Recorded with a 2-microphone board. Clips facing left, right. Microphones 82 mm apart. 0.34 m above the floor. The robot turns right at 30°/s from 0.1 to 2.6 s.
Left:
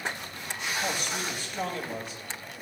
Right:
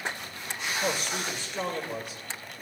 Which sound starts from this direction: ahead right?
A man speaking, at 0.8 s.